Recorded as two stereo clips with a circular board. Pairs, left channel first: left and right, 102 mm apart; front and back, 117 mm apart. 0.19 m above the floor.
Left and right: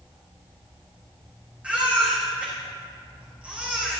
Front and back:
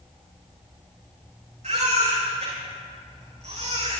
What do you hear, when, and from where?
1.6 s a baby crying: 165° right, 7.5 m